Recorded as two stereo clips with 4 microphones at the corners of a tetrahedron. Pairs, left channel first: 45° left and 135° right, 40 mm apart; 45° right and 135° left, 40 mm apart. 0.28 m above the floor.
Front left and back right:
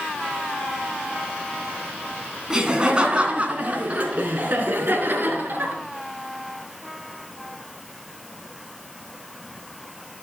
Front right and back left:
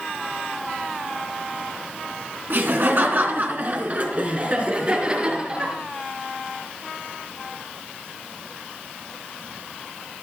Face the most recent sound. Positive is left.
turn(degrees=-160)